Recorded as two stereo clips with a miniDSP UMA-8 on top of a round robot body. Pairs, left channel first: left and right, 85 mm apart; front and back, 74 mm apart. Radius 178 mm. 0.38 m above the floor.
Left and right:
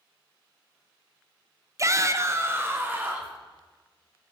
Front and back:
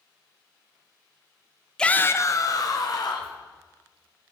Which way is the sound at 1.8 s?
75° right.